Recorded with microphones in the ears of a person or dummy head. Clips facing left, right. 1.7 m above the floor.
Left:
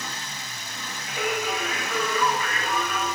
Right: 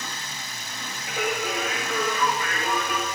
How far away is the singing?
About 2.5 m.